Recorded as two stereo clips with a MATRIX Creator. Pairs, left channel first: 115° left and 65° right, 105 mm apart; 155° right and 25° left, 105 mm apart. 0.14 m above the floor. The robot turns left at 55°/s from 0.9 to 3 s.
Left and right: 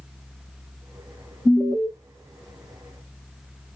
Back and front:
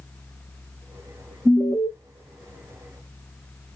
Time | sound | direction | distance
1.4 | an alarm | 25° left | 1.3 m